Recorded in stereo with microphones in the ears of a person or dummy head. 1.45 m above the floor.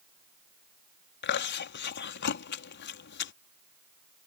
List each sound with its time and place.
1.2 s chewing: 55° left (ahead or behind)